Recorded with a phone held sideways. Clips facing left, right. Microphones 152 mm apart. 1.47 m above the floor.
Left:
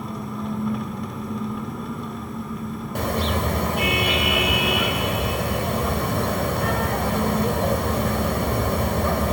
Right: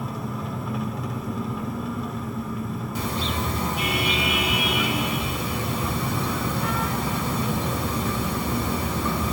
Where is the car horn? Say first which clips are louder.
Left 5 dB; 65° left (ahead or behind), 2.5 m.